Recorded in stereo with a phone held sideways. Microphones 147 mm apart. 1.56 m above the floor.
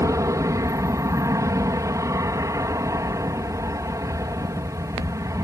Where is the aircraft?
25° right (ahead or behind).